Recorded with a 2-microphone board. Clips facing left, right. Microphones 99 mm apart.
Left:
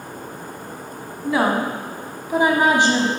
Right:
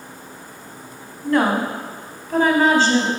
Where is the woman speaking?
5° left (ahead or behind), 1.4 m; by 3.1 s 20° left (ahead or behind), 1.3 m.